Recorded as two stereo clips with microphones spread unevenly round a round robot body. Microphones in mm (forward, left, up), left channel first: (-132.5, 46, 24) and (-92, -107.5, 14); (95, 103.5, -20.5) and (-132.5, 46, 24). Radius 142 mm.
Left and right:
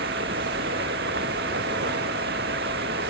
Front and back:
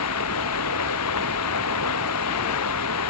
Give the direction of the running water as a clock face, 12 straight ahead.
1 o'clock.